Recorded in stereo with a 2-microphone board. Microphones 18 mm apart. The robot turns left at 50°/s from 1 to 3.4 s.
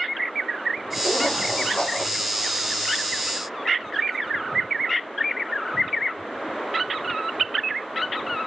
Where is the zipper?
30° left (ahead or behind), 9 m.